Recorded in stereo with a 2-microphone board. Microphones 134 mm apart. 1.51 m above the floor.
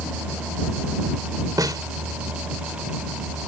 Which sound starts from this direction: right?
A snare drum, at 1.6 s.